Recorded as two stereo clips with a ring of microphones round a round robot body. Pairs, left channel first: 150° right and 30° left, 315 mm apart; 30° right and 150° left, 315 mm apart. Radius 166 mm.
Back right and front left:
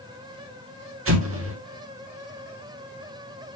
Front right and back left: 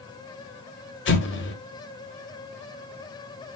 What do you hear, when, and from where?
1.1 s an explosion: 5° left, 1.8 m